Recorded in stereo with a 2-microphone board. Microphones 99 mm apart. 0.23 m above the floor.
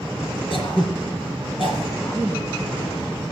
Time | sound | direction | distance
0.5 | throat clearing | 55° left (ahead or behind) | 4 m
2.0 | a woman speaking | 30° left (ahead or behind) | 2 m